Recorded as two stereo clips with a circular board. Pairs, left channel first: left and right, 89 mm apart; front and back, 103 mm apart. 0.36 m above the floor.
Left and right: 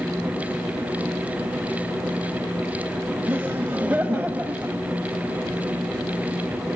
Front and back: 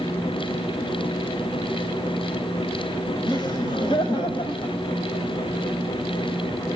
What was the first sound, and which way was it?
Laughter, 25° right.